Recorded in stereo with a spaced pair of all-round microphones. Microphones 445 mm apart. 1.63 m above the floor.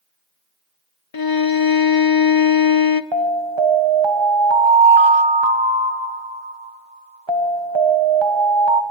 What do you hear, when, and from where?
1.1 s a violin: 50° left (ahead or behind), 0.7 m
3.1 s an alarm: 70° right (ahead or behind), 1.4 m